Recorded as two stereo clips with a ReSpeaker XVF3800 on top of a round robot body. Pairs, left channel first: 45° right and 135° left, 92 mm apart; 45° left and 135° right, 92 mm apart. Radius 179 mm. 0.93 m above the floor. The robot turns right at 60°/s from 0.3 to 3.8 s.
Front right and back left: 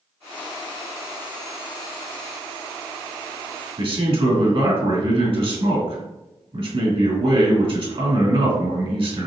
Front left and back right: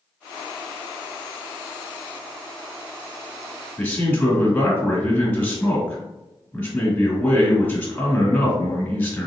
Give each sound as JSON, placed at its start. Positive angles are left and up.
{"t": 3.8, "sound": "a man speaking", "azimuth_deg": 115, "distance_m": 2.0}